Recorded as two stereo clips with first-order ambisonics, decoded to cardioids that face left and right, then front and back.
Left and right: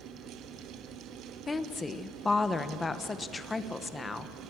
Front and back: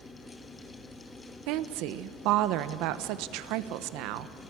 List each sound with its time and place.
1.5 s a woman speaking: 165° left, 1.0 m